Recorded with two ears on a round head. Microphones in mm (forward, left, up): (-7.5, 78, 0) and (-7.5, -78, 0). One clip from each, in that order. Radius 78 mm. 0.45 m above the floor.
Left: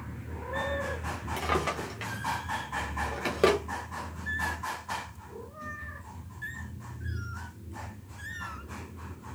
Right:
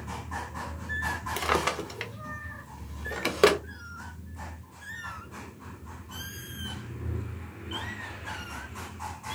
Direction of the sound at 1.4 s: 35° right (ahead or behind).